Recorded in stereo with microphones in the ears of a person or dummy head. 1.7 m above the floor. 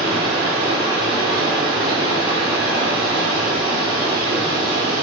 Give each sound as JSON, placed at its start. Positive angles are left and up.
{"t": 0.0, "sound": "running water", "side_deg": 30, "distance_m": 2.0}